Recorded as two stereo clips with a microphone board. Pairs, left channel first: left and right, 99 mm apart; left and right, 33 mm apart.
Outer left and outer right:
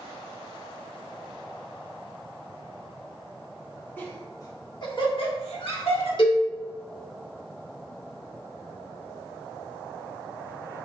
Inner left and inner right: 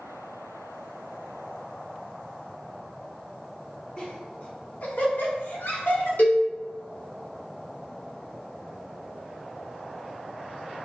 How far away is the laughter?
About 1.5 m.